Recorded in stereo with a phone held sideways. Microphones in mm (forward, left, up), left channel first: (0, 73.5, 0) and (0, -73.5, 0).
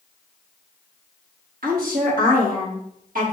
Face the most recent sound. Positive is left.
turn(degrees=-75)  # may be behind; listen again after turning